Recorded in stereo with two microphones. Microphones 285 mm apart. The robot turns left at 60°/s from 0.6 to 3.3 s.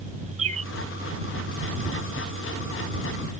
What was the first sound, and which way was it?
A bird, 55° right (ahead or behind).